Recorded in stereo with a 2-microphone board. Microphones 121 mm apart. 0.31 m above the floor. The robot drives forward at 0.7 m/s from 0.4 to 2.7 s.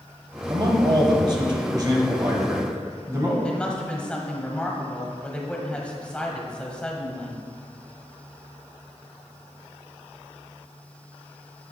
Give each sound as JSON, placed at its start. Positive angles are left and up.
{"t": 0.5, "sound": "a man speaking", "side_deg": -35, "distance_m": 1.2}
{"t": 3.4, "sound": "a woman speaking", "side_deg": 10, "distance_m": 1.3}